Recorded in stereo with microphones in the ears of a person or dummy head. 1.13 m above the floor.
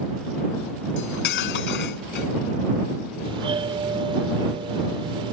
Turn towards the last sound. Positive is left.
turn(degrees=-30)  # may be behind; listen again after turning